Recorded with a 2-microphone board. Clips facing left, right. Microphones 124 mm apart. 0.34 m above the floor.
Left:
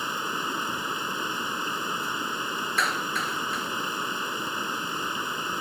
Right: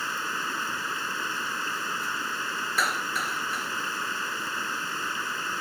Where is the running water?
20° left (ahead or behind).